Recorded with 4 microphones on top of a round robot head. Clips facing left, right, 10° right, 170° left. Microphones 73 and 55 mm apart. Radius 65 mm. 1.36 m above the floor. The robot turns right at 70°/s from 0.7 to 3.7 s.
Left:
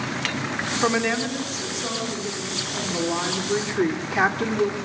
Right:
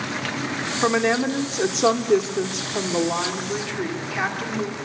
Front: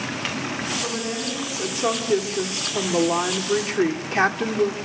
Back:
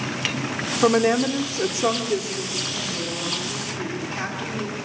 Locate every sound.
0.8 s a woman speaking: 175° right, 3 m; by 4.8 s 25° left, 3 m